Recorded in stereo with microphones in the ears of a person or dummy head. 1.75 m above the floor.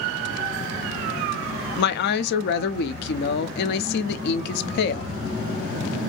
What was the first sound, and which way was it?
A woman speaking, 65° left (ahead or behind).